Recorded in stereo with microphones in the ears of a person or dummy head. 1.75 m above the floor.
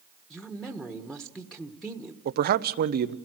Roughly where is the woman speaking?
Centre.